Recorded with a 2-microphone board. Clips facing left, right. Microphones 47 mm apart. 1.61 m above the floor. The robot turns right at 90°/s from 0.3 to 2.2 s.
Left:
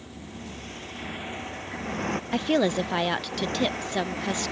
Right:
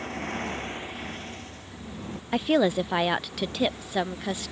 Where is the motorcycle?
65° right (ahead or behind); by 4.5 s 70° left (ahead or behind).